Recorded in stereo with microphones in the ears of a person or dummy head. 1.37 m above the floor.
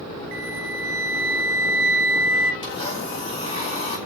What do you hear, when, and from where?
0.3 s a flute: 55° right (ahead or behind), 1.4 m
2.6 s a blender: 30° left (ahead or behind), 5 m